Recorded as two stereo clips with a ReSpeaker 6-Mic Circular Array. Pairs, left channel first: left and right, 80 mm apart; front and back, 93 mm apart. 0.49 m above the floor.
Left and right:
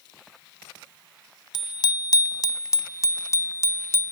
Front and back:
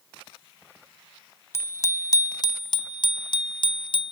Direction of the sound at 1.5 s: 60° left.